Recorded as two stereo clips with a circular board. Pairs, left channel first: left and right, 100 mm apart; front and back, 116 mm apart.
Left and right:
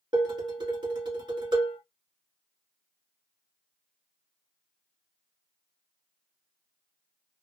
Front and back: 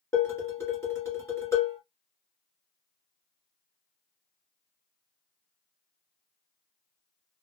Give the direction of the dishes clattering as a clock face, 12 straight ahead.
2 o'clock.